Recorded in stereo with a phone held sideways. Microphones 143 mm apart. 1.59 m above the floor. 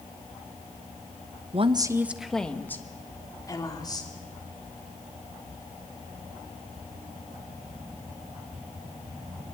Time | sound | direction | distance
1.5 | a woman speaking | 45° right (ahead or behind) | 1.1 m